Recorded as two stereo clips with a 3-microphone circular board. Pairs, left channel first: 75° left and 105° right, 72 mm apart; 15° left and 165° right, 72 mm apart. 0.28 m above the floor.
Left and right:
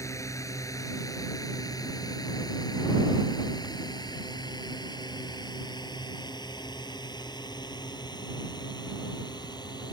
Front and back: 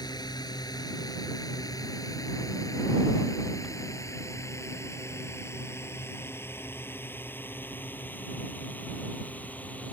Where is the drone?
30° left; by 9.9 s 85° left.